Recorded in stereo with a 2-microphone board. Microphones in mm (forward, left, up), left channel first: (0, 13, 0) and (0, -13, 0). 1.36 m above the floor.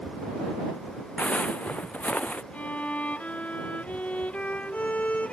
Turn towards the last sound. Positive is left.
turn(degrees=75)  # may be behind; listen again after turning